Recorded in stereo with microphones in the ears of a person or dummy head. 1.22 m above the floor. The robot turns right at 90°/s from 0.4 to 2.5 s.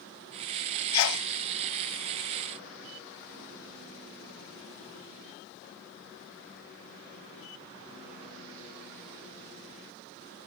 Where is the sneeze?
90° left, 0.6 m; by 1.3 s 120° left, 0.6 m.